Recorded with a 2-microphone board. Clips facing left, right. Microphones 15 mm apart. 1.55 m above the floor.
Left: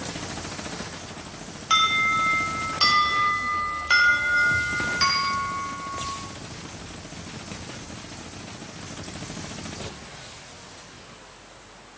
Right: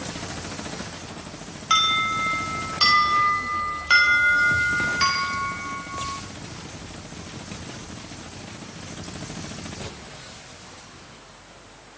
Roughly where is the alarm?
Centre.